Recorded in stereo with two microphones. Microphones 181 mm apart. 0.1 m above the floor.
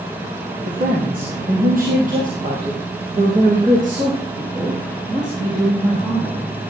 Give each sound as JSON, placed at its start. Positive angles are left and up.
{"t": 0.7, "sound": "a woman speaking", "side_deg": -50, "distance_m": 2.5}